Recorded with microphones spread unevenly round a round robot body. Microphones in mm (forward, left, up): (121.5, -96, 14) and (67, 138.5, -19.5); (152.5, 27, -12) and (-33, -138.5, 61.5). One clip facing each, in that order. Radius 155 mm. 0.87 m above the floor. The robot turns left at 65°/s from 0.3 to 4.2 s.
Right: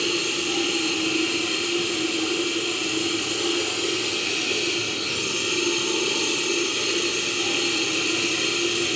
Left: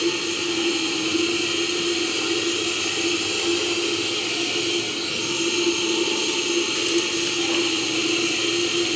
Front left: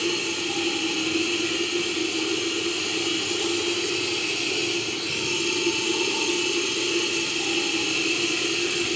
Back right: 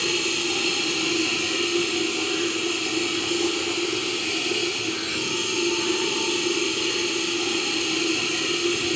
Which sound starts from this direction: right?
Running water, at 0.0 s.